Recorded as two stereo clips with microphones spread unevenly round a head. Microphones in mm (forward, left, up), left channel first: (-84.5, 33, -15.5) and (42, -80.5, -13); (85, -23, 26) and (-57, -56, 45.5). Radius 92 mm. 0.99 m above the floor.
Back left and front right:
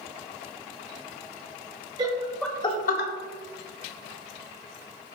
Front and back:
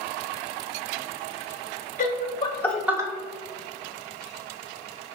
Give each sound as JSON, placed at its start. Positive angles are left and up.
{"t": 2.0, "sound": "laughter", "azimuth_deg": 25, "distance_m": 1.3}